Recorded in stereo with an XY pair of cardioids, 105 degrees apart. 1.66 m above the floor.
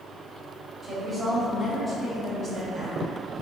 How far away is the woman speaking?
About 1.9 m.